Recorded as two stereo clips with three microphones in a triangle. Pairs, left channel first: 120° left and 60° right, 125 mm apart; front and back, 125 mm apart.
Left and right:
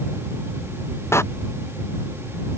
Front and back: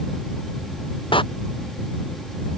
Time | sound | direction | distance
1.1 | a door slam | 50° left | ?